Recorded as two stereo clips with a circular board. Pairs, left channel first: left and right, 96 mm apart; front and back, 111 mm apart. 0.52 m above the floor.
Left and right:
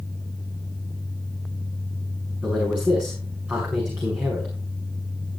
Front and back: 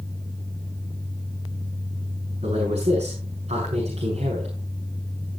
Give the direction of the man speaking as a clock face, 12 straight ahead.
5 o'clock.